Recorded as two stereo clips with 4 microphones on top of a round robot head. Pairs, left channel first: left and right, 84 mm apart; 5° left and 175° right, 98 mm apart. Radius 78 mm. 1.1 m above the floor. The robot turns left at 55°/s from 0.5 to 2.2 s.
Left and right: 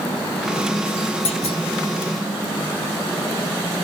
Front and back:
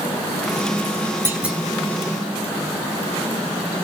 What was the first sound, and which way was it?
A clunk, 115° left.